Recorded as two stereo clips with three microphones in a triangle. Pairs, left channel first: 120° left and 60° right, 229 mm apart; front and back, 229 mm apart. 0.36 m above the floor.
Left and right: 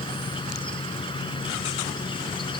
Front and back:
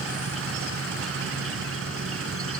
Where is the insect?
175° right.